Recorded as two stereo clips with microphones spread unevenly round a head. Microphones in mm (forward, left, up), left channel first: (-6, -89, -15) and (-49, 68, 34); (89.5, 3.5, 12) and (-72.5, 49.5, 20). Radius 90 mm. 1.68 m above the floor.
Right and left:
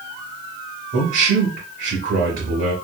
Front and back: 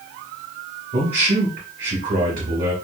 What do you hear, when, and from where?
0.9 s a man speaking: 130° left, 1.1 m